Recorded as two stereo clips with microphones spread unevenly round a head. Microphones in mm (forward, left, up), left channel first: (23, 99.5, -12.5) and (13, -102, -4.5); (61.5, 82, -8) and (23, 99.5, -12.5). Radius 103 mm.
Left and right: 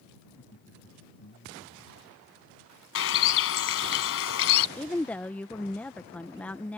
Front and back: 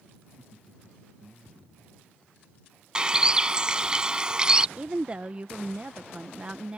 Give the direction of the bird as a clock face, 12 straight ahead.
9 o'clock.